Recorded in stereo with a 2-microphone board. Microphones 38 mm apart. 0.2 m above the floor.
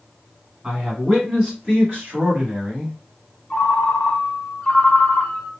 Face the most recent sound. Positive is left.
turn(degrees=30)  # may be behind; listen again after turning